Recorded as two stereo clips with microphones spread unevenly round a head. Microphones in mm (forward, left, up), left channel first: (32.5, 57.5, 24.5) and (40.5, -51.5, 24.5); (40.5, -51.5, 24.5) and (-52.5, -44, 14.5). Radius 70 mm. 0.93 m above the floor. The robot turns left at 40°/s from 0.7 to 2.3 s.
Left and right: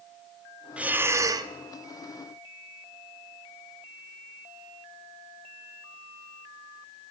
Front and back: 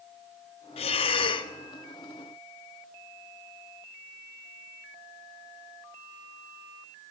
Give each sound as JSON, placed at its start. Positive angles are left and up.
{"t": 0.8, "sound": "breathing", "azimuth_deg": -5, "distance_m": 0.6}